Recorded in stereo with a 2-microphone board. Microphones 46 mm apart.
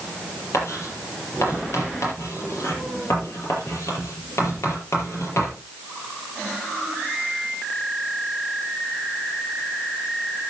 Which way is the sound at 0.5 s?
85° left.